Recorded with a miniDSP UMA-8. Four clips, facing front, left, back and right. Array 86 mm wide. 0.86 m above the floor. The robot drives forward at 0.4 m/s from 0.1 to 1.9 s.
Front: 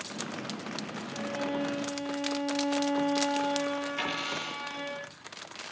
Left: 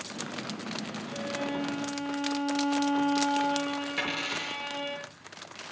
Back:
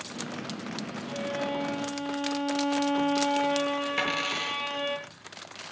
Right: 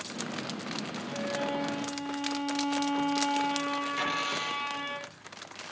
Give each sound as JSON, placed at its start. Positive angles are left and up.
{"t": 1.1, "sound": "a violin", "azimuth_deg": -170, "distance_m": 8.0}
{"t": 4.0, "sound": "a dropped coin", "azimuth_deg": 170, "distance_m": 7.0}